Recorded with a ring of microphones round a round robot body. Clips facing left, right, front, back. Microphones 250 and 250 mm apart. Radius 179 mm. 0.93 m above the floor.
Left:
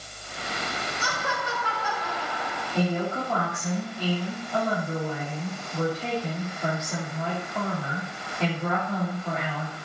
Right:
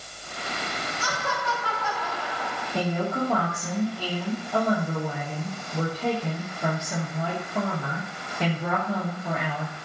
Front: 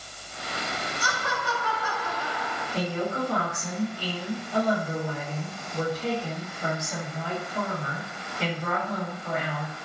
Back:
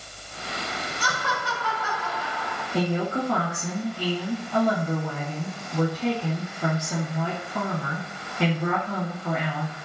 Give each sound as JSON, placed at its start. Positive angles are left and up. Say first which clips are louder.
{"t": 1.0, "sound": "laughter", "louder": "right 2 dB, back 1 dB", "azimuth_deg": 175, "distance_m": 4.5}
{"t": 2.7, "sound": "a woman speaking", "louder": "even, back 4 dB", "azimuth_deg": -170, "distance_m": 2.5}